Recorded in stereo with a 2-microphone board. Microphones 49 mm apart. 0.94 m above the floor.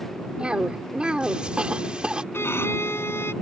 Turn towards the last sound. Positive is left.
turn(degrees=60)  # may be behind; listen again after turning